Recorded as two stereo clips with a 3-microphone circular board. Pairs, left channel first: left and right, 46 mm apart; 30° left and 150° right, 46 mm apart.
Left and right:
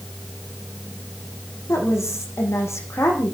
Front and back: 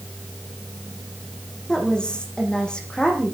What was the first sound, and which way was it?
A woman speaking, 100° left.